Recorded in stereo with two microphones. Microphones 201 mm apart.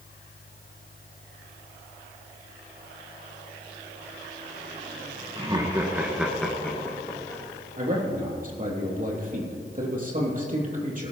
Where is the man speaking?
40° right (ahead or behind), 3 m.